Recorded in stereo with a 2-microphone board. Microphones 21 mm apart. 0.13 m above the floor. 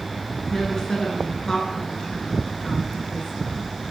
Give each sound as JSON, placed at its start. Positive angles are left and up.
{"t": 0.5, "sound": "a woman speaking", "side_deg": 40, "distance_m": 2.0}